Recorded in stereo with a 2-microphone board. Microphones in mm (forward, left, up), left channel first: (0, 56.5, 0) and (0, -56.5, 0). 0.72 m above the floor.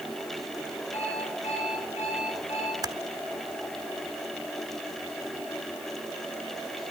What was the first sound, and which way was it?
An alarm clock, 80° left.